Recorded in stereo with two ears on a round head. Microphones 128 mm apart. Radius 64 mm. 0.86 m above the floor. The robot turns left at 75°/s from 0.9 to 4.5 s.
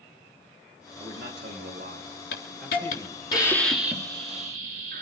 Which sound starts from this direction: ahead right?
A man speaking, at 1.0 s.